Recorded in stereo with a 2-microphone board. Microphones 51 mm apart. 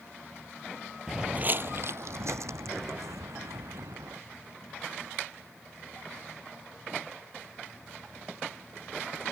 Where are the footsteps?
5° right (ahead or behind); by 4.2 s 85° right.